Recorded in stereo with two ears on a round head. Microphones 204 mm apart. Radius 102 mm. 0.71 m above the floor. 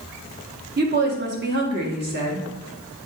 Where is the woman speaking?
45° right (ahead or behind), 1.4 m.